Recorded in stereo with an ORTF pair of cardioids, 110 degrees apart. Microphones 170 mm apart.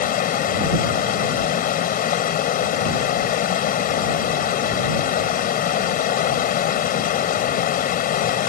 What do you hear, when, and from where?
0.0 s running water: 55° left